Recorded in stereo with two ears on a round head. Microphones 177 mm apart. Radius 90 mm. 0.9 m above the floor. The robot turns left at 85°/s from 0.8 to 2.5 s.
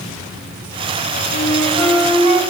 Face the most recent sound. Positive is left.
turn(degrees=-55)